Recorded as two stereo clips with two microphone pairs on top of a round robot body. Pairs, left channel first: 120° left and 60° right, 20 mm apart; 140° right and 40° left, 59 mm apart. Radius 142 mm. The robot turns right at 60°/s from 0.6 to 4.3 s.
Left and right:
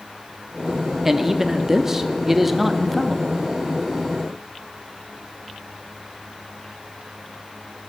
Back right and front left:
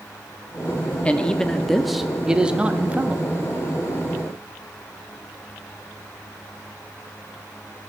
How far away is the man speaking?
About 0.9 m.